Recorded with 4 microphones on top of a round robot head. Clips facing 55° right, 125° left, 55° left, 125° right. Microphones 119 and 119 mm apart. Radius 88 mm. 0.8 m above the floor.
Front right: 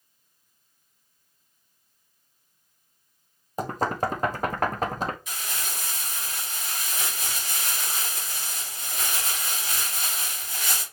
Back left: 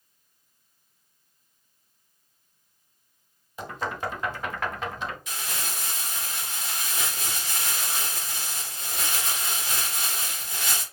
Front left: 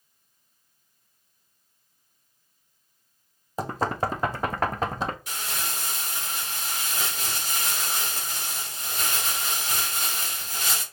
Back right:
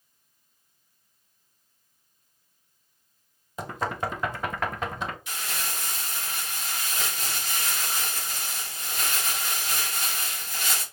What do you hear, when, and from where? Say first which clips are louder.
3.6 s knocking: front right 5 dB, front left 3 dB; 5° right, 0.6 m
5.3 s crumpling: back left 1 dB, front left 1 dB; 105° left, 2.5 m